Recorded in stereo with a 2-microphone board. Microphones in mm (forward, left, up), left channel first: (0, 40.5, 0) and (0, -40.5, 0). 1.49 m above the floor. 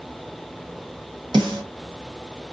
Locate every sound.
1.3 s a snare drum: 75° right (ahead or behind), 1.5 m